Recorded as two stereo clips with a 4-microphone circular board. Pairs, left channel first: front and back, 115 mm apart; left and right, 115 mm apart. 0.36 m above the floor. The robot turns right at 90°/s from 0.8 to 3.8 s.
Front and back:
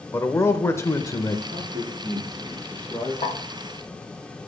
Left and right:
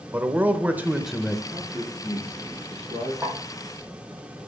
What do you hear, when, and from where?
0.1 s a man speaking: 30° right, 0.8 m; by 1.4 s 20° left, 0.8 m
1.5 s a man speaking: 165° left, 6 m; by 3.1 s 45° right, 6 m
3.2 s a snare drum: 20° right, 3 m; by 3.4 s 5° right, 3 m